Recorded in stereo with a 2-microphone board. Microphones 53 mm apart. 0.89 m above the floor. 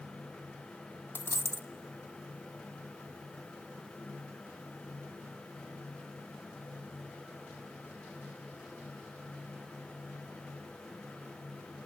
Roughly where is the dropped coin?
Left.